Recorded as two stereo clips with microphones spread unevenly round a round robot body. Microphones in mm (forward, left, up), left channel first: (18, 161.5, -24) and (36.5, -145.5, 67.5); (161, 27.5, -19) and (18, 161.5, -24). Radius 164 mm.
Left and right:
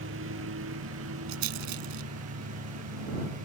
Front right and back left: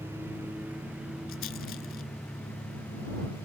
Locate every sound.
0.0 s a lawn mower: 140° right; by 3.5 s 130° right
1.3 s a rattle: 95° right